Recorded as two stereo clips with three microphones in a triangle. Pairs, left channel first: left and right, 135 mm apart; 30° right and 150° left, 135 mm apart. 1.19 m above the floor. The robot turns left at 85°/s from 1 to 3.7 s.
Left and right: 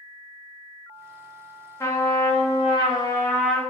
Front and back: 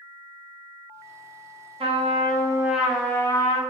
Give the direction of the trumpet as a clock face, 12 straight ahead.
7 o'clock.